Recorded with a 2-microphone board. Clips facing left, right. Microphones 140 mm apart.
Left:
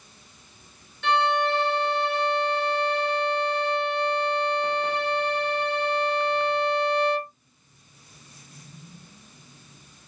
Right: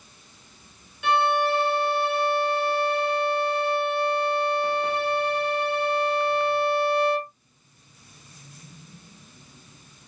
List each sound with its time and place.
1.0 s a violin: 10° right (ahead or behind), 1.2 m